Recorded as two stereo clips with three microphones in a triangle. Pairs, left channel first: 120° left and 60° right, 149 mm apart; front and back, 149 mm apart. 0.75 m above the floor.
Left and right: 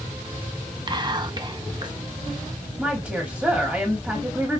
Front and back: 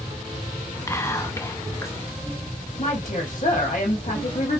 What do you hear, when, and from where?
0.9 s whispering: 50° right, 0.7 m
2.8 s a woman speaking: 30° left, 1.0 m